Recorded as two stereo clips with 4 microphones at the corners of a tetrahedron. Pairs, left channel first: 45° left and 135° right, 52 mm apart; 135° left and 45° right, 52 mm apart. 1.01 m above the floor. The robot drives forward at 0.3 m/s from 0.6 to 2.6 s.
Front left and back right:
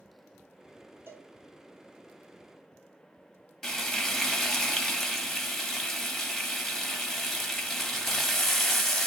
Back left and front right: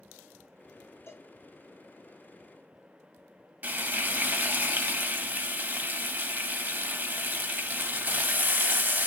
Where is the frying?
30° right, 0.6 m.